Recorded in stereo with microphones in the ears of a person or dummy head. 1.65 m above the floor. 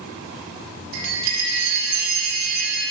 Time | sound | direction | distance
0.9 | a chime | 60° right (ahead or behind) | 2.5 m